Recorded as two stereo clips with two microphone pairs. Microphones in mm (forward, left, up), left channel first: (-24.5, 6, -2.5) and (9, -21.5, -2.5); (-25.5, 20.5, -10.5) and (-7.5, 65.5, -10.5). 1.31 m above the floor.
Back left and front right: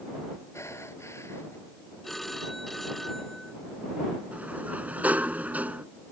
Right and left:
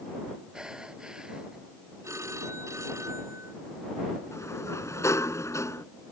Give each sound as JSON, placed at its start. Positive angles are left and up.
{"t": 0.5, "sound": "breathing", "azimuth_deg": 140}
{"t": 2.0, "sound": "a phone ringing", "azimuth_deg": 55}
{"t": 4.3, "sound": "a sliding door", "azimuth_deg": -100}